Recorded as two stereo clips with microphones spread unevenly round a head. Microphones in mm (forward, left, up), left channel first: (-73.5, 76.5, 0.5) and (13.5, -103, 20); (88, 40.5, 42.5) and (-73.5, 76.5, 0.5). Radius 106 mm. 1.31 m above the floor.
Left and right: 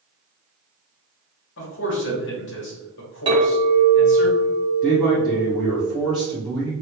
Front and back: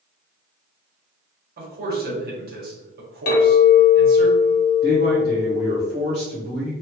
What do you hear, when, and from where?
1.6 s a man speaking: 145° left, 1.5 m
3.3 s a clink: 5° left, 1.1 m
4.8 s a man speaking: 155° right, 1.0 m